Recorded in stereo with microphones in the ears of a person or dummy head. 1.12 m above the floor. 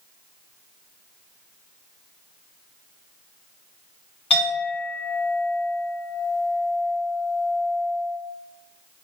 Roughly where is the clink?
Left.